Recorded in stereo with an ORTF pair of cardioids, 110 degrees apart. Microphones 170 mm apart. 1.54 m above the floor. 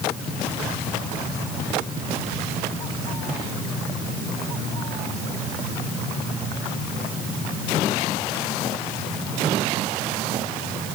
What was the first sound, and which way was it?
Only background noise.